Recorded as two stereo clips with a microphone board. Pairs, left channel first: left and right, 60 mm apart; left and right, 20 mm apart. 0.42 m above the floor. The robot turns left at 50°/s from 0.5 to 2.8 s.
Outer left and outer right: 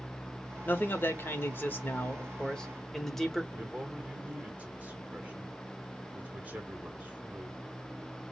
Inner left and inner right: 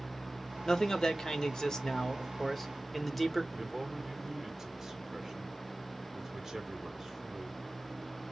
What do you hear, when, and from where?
0.7 s a man speaking: 120° left, 0.9 m; by 3.4 s 10° left, 0.9 m
3.5 s a man speaking: 25° right (ahead or behind), 1.4 m